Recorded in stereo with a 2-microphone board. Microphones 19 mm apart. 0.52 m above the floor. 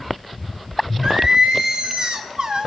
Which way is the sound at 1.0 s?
40° right (ahead or behind).